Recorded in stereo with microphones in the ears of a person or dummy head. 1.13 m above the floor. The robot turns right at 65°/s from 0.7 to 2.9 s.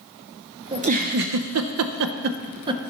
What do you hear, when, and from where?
0.7 s a giggle: 25° right (ahead or behind), 0.5 m; by 2.8 s 15° right (ahead or behind), 0.5 m